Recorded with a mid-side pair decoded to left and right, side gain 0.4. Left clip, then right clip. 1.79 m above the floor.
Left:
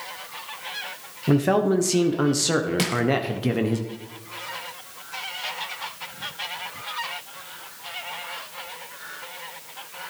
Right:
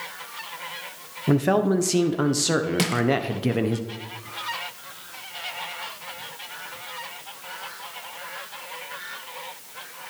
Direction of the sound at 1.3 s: Straight ahead.